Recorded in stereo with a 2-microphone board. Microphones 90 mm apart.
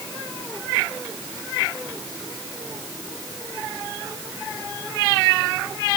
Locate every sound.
Only background noise.